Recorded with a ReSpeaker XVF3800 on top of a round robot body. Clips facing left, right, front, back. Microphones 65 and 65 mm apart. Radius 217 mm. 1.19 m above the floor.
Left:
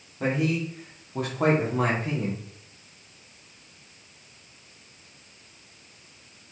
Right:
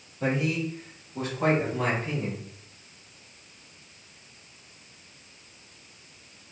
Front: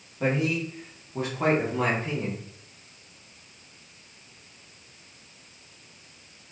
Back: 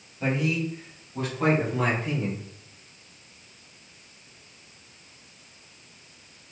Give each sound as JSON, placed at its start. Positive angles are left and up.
{"t": 0.2, "sound": "a man speaking", "azimuth_deg": 55, "distance_m": 3.5}